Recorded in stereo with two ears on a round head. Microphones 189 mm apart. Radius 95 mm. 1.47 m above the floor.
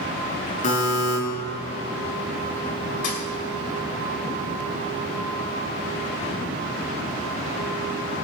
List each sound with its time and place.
0.6 s a buzzer: 35° left (ahead or behind), 5 m
3.0 s a thud: 40° left (ahead or behind), 2.5 m